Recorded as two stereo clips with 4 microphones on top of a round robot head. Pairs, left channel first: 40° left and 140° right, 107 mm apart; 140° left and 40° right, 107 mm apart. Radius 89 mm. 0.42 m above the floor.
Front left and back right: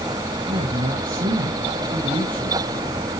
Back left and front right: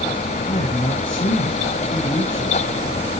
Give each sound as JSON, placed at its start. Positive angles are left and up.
{"t": 0.5, "sound": "a man speaking", "azimuth_deg": 180, "distance_m": 4.0}